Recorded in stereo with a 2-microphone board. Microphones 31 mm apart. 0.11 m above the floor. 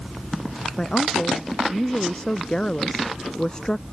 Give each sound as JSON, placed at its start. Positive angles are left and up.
{"t": 0.8, "sound": "a woman speaking", "side_deg": 25}